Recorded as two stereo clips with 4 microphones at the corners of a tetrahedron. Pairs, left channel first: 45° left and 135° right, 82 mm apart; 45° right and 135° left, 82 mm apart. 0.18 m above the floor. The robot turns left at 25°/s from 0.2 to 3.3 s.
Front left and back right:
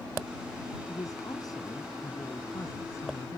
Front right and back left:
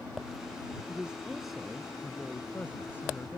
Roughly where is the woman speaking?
Ahead left.